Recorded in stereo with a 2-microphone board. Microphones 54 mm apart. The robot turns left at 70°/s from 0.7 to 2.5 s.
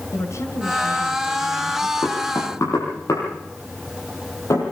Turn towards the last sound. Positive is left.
turn(degrees=65)  # may be behind; listen again after turning